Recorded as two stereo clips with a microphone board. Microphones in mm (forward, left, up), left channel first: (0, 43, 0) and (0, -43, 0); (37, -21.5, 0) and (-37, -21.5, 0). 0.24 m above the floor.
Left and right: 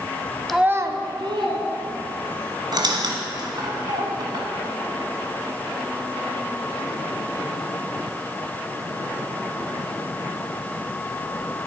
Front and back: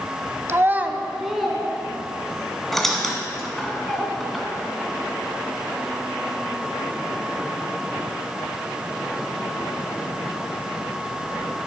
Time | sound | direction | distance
0.5 | a child speaking | 175° left | 0.6 m
2.7 | a squeak | 85° right | 1.6 m